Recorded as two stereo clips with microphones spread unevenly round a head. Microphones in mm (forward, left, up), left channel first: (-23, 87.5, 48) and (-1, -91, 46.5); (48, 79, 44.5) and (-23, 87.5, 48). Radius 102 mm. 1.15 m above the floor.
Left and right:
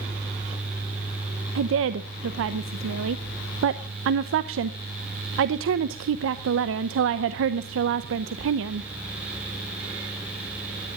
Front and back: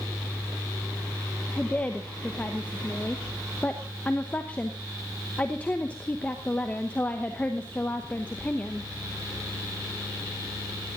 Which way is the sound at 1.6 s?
85° right.